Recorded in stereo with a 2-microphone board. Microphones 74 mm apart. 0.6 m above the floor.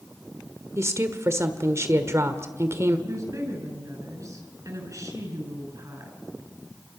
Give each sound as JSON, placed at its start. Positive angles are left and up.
{"t": 0.8, "sound": "a woman speaking", "side_deg": -40, "distance_m": 1.7}
{"t": 3.1, "sound": "a woman speaking", "side_deg": -45, "distance_m": 7.0}